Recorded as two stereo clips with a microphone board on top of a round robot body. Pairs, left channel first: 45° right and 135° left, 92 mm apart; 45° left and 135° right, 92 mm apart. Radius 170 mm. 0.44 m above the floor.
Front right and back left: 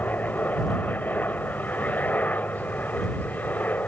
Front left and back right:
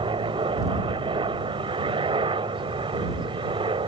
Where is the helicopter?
115° right.